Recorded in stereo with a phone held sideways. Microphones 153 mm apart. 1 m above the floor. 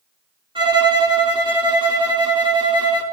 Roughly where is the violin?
Right.